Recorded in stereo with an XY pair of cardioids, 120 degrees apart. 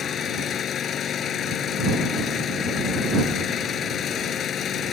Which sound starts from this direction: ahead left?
An engine running, at 0.0 s.